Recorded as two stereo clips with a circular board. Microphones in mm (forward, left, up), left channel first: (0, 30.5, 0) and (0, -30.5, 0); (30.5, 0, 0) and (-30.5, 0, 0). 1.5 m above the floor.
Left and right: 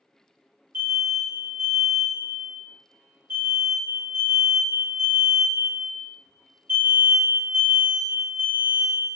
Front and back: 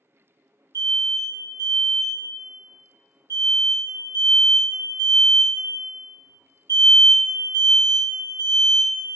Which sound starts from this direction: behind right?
An alarm, at 0.7 s.